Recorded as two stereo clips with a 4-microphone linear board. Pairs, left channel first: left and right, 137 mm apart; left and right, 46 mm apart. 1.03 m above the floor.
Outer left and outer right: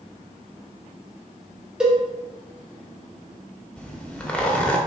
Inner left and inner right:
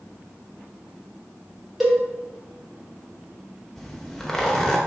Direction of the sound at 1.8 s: 5° right (ahead or behind).